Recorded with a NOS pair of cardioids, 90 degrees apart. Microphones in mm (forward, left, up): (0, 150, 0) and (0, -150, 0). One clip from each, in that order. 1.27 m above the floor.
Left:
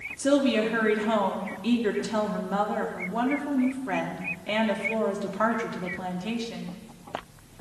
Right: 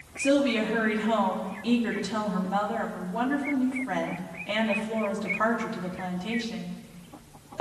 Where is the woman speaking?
20° left, 3 m.